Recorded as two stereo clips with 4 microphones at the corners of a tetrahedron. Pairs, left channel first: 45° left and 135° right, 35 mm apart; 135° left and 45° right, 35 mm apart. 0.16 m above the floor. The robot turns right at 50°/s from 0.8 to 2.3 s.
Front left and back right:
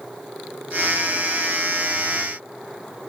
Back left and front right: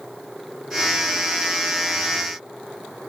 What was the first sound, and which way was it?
Only background noise.